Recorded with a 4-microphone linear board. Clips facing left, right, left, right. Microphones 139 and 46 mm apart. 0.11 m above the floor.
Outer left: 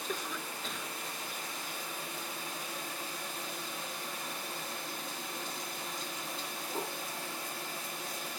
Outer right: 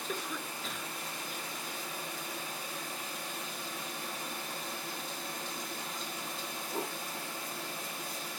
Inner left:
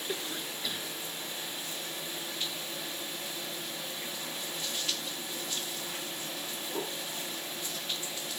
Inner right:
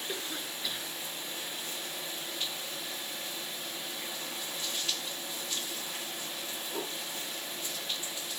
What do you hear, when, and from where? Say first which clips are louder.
0.1 s a cough: even, inner left 3 dB; centre (ahead or behind), 1.4 m